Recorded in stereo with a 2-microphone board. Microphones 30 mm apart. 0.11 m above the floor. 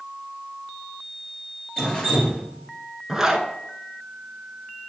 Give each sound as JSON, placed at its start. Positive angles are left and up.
{"t": 1.8, "sound": "dripping", "side_deg": 25, "distance_m": 2.0}
{"t": 3.1, "sound": "a zipper", "side_deg": -15, "distance_m": 0.7}